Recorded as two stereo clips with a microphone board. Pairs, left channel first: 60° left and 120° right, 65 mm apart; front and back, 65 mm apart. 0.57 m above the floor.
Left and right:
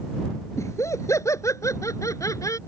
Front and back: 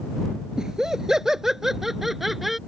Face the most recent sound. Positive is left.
turn(degrees=90)